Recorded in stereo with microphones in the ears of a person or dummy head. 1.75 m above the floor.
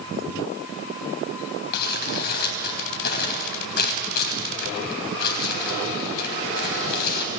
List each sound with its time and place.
1.7 s crumpling: 55° left (ahead or behind), 3 m